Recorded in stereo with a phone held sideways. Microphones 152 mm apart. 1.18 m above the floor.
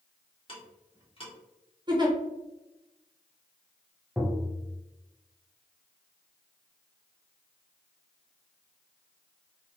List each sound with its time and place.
0.5 s ticking: 40° left (ahead or behind), 1.1 m
1.9 s a giggle: 30° right (ahead or behind), 0.7 m
4.2 s tapping: 5° right (ahead or behind), 0.7 m